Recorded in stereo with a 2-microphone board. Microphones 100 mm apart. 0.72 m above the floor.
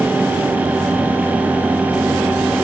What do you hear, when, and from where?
Only background noise.